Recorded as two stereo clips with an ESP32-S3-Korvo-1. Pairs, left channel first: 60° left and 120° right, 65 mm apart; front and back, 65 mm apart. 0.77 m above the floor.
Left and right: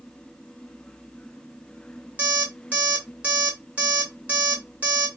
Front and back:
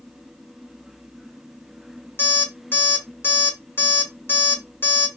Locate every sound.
2.2 s an alarm clock: 55° right, 1.2 m